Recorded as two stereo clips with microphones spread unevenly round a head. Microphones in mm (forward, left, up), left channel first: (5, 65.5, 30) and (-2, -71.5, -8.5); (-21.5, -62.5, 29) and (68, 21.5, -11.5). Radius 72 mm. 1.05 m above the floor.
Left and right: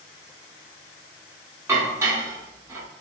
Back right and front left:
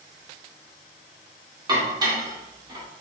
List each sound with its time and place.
1.7 s dishes clattering: 20° right, 1.0 m